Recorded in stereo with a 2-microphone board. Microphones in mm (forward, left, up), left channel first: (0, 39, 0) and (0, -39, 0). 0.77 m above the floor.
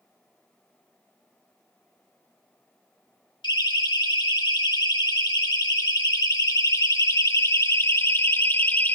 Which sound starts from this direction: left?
A siren, at 3.4 s.